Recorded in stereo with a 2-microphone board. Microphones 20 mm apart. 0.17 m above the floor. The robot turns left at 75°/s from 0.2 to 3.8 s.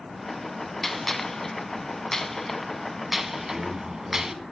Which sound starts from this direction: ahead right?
A man speaking, at 3.4 s.